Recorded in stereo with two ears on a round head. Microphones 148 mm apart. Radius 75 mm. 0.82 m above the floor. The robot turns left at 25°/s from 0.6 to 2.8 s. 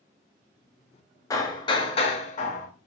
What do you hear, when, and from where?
1.3 s hammering: 160° left, 1.0 m; by 2.7 s 125° left, 1.0 m